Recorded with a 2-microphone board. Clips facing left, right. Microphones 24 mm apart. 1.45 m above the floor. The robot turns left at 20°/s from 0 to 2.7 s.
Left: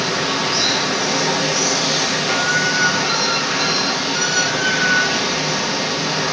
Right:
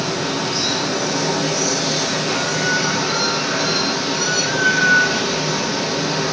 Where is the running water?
80° left, 0.8 m; by 6.3 s 25° left, 0.8 m.